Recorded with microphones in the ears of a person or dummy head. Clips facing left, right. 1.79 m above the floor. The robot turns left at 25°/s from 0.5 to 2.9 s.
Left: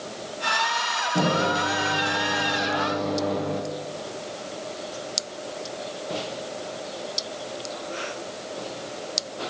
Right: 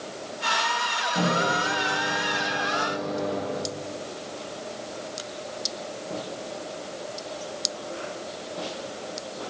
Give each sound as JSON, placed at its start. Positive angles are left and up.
{"t": 1.1, "sound": "a microwave", "azimuth_deg": 150, "distance_m": 0.8}